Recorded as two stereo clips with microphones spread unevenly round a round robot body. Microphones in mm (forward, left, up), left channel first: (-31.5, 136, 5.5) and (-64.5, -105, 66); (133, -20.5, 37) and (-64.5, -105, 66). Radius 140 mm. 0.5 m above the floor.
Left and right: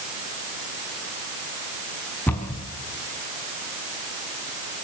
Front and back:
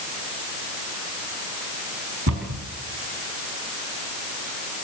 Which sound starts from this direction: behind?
A cupboard door, at 2.3 s.